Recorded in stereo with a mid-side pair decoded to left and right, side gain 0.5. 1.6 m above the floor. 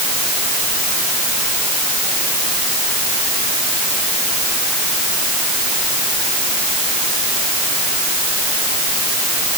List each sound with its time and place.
Only background noise.